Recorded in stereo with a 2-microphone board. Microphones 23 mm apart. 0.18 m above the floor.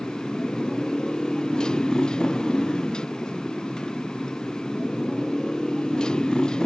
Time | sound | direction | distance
0.0 | a motorcycle | 35° left (ahead or behind) | ?